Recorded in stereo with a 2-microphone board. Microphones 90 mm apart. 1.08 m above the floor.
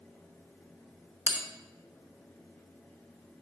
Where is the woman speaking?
No woman speaking in this recording.